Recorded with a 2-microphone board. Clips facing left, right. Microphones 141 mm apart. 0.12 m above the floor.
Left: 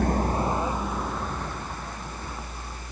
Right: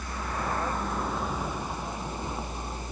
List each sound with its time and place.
0.0 s a vehicle: 55° left (ahead or behind); by 2.9 s 20° right (ahead or behind)